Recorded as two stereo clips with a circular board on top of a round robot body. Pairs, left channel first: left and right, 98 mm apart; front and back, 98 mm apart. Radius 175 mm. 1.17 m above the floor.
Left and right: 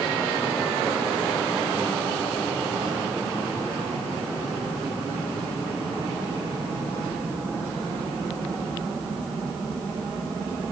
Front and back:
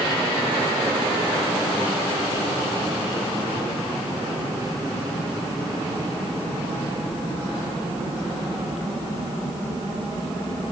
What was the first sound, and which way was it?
Only background noise.